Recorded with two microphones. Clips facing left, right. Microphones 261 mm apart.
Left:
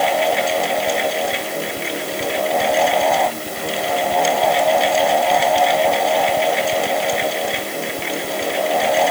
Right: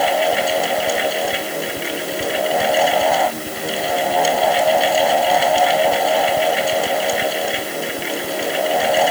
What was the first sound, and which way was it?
Only background noise.